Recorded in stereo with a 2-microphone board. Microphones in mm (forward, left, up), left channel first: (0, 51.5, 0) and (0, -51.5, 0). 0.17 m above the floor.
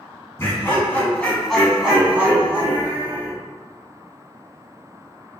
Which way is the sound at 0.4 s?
25° left (ahead or behind).